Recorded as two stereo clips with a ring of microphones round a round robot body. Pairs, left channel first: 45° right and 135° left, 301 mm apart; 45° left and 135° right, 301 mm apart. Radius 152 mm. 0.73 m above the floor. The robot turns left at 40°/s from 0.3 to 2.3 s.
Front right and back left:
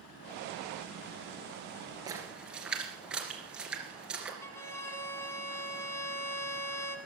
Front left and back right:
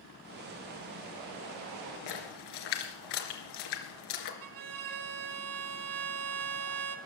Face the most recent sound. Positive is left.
turn(degrees=-125)